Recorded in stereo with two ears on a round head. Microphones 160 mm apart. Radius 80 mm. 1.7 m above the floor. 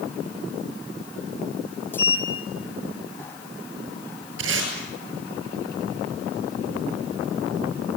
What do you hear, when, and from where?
1.9 s a sliding door: 10° left (ahead or behind), 1.9 m
4.4 s tape being pulled: 80° right, 9.5 m